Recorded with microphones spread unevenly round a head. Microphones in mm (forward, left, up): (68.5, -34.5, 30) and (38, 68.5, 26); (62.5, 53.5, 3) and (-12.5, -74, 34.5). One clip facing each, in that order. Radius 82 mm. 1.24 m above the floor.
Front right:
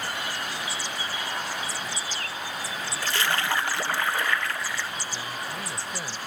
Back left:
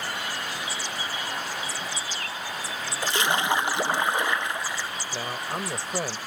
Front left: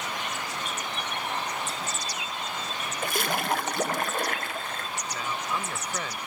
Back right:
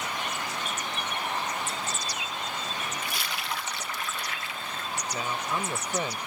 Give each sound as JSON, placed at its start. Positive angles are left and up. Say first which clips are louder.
{"t": 3.0, "sound": "a splash", "louder": "back left 3 dB, front left 7 dB", "azimuth_deg": 40}
{"t": 5.1, "sound": "a man speaking", "louder": "back left 3 dB, back right 1 dB", "azimuth_deg": 165}